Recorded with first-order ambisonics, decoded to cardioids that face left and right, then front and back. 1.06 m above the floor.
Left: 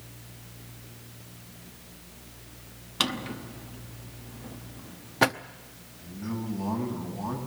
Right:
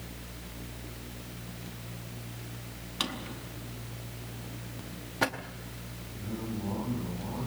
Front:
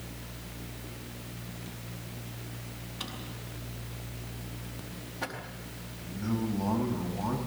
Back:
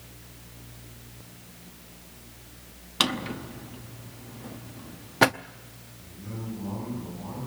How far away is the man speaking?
About 8 m.